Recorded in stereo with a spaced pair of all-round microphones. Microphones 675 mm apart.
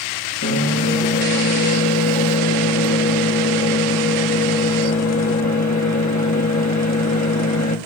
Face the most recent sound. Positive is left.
turn(degrees=25)  # may be behind; listen again after turning